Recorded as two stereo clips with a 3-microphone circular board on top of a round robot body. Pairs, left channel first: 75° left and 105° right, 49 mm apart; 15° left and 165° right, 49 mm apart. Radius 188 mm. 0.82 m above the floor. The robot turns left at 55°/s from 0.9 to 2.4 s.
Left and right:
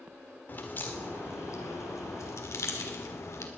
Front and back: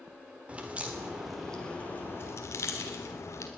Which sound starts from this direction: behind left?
A crack, at 0.5 s.